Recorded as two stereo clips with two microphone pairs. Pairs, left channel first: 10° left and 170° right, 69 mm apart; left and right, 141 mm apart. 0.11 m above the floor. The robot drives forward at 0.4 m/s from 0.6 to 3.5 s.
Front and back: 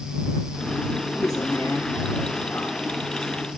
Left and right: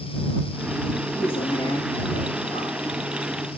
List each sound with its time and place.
1.1 s a man speaking: 40° left, 6.5 m; by 2.9 s 45° left, 5.5 m